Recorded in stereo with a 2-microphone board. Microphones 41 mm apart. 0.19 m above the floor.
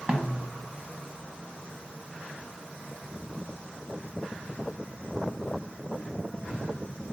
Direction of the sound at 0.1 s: 20° right (ahead or behind).